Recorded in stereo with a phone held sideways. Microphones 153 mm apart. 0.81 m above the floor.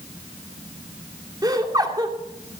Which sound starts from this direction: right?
Laughter, at 1.4 s.